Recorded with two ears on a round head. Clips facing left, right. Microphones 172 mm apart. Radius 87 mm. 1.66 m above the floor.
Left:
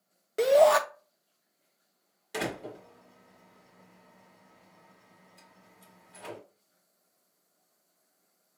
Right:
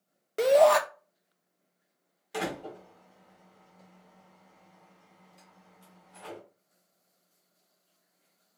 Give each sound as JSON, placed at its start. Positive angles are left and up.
{"t": 0.4, "sound": "a shout", "side_deg": 5, "distance_m": 0.6}
{"t": 2.3, "sound": "a door slam", "side_deg": 20, "distance_m": 1.4}